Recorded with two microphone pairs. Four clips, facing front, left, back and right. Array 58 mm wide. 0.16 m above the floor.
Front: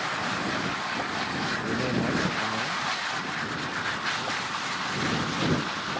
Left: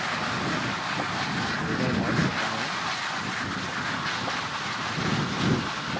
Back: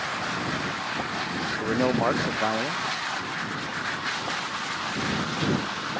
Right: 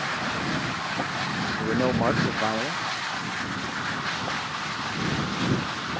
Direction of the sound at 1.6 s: 155° right.